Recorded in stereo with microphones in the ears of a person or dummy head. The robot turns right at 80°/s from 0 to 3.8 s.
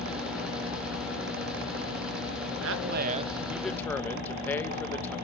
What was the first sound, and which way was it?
A man speaking, 85° right.